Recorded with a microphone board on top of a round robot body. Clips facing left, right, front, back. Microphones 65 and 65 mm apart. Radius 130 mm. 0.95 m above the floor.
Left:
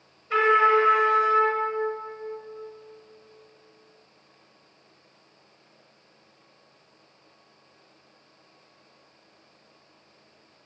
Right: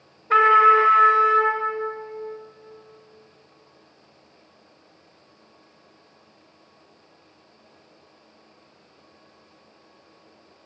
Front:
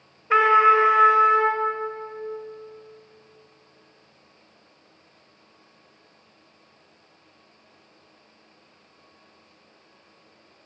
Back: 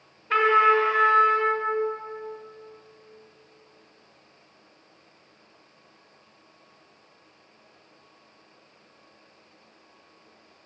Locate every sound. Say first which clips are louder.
0.3 s a trumpet: right 5 dB, front 3 dB; 70° right, 1.0 m